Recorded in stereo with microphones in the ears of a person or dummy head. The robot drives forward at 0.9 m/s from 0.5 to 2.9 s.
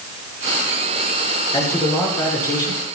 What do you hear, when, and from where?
1.5 s a man speaking: 15° left (ahead or behind), 5.5 m; by 3.0 s 20° left (ahead or behind), 4 m